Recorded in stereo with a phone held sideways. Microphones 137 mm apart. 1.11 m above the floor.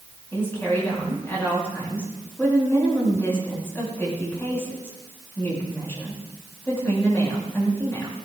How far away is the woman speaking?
About 6.5 m.